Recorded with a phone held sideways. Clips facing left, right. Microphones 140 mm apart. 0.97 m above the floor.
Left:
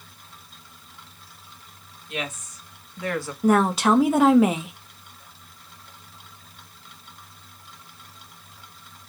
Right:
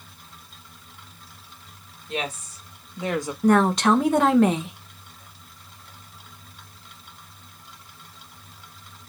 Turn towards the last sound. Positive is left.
turn(degrees=5)  # may be behind; listen again after turning